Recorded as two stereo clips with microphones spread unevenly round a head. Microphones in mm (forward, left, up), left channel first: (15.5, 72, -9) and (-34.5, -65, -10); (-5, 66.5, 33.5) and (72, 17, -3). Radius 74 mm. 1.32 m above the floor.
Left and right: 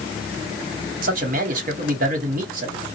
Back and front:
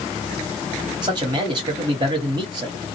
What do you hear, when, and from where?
1.0 s a man speaking: 70° right, 1.1 m